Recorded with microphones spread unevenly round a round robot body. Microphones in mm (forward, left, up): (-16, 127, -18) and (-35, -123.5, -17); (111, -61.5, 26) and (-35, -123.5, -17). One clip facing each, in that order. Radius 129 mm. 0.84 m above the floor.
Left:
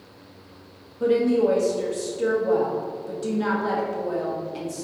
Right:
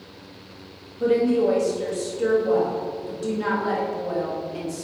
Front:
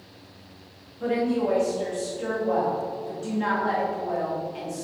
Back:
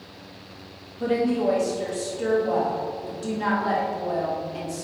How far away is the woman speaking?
About 1.3 m.